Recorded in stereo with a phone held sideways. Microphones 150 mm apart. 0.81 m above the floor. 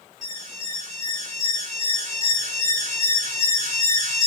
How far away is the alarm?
About 7 m.